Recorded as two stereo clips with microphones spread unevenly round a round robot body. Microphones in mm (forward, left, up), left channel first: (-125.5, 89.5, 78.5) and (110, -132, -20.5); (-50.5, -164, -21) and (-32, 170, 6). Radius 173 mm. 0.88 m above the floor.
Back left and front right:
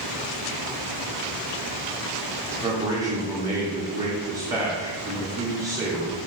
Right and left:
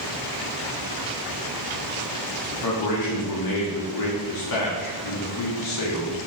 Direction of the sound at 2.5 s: 120° right.